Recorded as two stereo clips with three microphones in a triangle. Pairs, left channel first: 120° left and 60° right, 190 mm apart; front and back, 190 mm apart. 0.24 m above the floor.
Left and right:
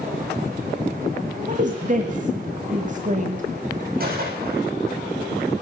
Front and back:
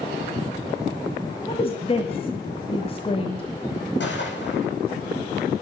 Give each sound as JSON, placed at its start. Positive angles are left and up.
{"t": 1.5, "sound": "a woman speaking", "azimuth_deg": -45, "distance_m": 1.3}
{"t": 4.0, "sound": "a gunshot", "azimuth_deg": -20, "distance_m": 9.5}